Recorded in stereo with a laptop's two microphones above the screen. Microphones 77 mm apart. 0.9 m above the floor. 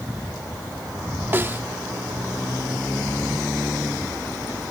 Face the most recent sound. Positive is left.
turn(degrees=-30)  # may be behind; listen again after turning